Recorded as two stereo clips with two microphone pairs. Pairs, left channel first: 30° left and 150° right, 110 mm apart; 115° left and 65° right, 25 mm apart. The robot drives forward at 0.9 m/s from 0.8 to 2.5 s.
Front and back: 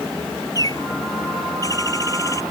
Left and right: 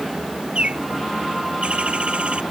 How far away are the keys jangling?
I don't hear keys jangling.